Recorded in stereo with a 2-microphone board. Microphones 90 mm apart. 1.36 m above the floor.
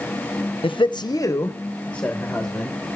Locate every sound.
0.6 s a man speaking: 75° left (ahead or behind), 0.6 m; by 2.8 s centre (ahead or behind), 1.5 m